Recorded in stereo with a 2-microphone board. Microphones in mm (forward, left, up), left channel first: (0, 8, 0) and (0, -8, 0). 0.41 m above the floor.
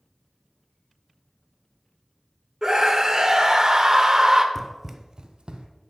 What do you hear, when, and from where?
2.6 s a scream: 35° right (ahead or behind), 0.9 m
4.5 s running footsteps: 15° left (ahead or behind), 0.5 m; by 5.7 s 70° right (ahead or behind), 1.0 m